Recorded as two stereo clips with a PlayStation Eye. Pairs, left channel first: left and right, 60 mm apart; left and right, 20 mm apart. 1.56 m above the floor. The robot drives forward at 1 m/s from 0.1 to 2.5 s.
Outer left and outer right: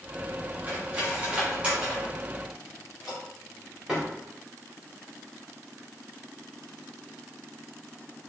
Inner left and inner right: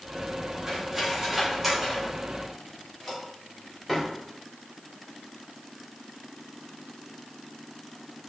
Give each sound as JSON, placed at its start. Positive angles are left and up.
{"t": 0.7, "sound": "cutlery clinking", "side_deg": -30, "distance_m": 2.0}